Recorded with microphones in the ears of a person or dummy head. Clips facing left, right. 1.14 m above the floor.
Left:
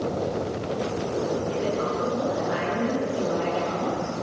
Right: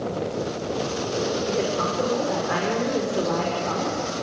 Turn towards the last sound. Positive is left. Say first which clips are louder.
# right 1 dB
turn(degrees=-75)  # may be behind; listen again after turning